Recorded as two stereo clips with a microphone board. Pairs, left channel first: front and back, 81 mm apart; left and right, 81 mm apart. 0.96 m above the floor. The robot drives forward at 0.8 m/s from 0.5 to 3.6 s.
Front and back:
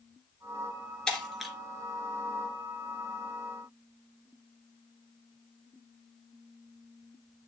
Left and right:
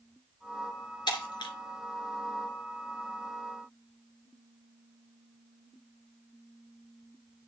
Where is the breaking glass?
80° left, 2 m; by 1.5 s 90° left, 2 m.